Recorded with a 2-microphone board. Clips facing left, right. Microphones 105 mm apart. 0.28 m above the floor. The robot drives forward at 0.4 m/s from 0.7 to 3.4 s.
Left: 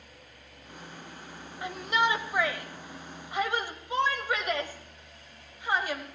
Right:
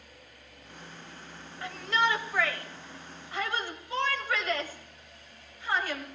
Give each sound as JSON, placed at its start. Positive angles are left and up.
{"t": 1.6, "sound": "a shout", "side_deg": 20, "distance_m": 1.0}